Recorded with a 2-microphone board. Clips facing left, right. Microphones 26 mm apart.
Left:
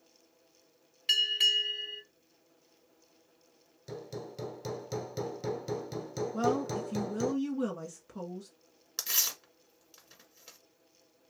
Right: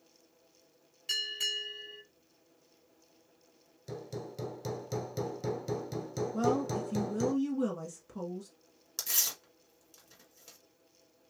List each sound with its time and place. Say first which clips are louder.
1.1 s a bell: left 7 dB; 45° left (ahead or behind), 3.5 m
3.9 s hammering: even; 10° left (ahead or behind), 0.8 m
6.3 s a woman speaking: even; 10° left (ahead or behind), 1.2 m
9.0 s tearing paper: left 1 dB; 25° left (ahead or behind), 1.6 m